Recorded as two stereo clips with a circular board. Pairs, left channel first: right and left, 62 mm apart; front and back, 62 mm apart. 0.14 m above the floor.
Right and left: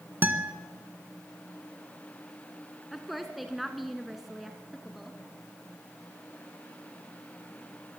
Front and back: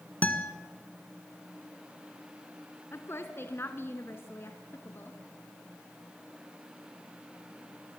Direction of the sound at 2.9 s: 5° left.